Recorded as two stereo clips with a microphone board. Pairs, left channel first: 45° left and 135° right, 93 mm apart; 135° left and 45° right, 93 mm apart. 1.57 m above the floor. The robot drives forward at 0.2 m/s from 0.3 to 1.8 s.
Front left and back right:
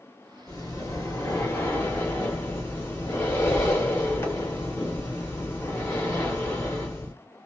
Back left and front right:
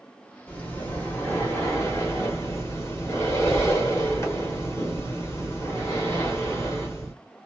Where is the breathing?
75° left, 1.2 m; by 7.1 s 90° left, 1.1 m.